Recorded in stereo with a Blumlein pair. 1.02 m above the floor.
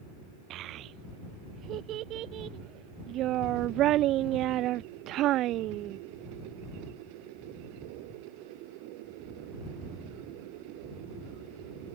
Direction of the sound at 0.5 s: 35° right.